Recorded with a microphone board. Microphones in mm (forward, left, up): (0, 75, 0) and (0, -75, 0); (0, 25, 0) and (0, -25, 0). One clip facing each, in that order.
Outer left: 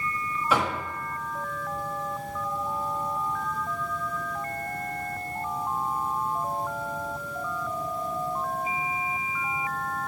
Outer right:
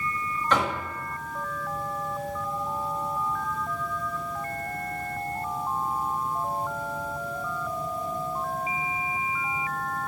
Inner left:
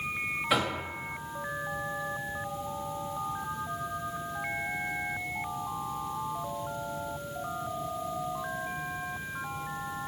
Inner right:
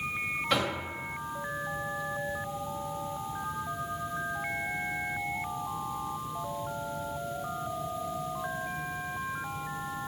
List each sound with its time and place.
0.5 s knocking: 10° left (ahead or behind), 1.1 m